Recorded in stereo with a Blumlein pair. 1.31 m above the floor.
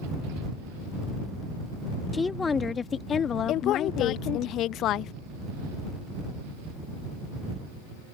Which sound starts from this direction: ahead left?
A woman speaking, at 3.5 s.